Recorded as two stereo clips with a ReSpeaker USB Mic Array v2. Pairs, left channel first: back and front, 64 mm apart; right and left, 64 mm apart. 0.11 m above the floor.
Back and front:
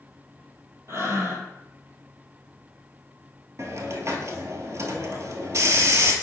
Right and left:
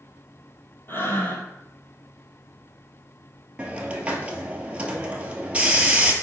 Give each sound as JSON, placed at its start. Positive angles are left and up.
{"t": 0.9, "sound": "breathing", "azimuth_deg": -40, "distance_m": 1.5}
{"t": 3.6, "sound": "a hiss", "azimuth_deg": 25, "distance_m": 1.1}